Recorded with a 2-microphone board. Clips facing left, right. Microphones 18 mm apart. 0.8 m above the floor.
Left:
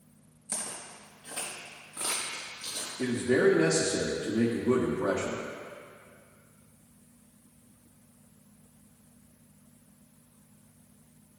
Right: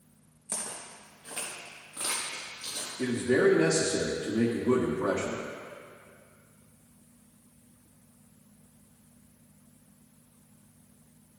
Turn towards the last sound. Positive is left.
turn(degrees=-45)  # may be behind; listen again after turning